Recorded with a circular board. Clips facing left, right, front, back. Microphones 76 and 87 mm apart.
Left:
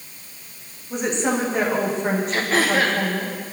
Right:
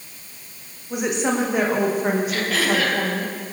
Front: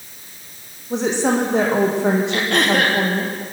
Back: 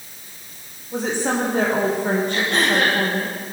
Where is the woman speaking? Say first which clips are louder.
Even, front 4 dB; 5° right, 7.5 m.